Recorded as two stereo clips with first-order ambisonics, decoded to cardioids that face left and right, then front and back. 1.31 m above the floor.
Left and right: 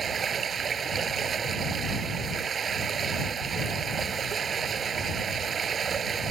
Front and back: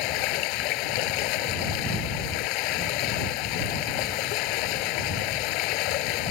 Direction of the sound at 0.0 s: 20° right.